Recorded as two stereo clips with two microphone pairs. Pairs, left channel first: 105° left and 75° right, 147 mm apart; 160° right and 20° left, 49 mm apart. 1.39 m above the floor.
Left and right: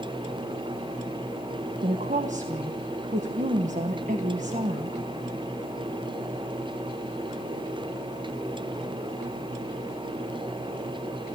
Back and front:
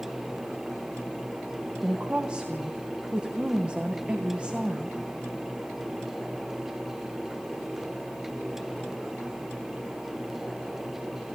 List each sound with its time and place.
1.8 s a woman speaking: 45° right, 1.3 m